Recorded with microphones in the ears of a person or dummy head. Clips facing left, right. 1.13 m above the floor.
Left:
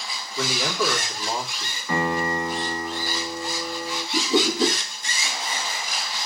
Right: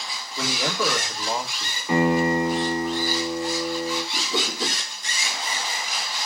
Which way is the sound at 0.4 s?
Centre (ahead or behind).